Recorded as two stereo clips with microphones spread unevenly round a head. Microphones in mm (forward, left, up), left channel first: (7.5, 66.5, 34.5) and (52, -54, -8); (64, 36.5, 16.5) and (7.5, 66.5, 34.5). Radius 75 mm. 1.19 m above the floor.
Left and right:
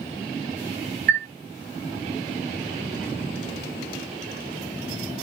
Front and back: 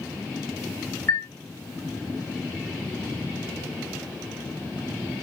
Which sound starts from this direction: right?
A chime, at 1.1 s.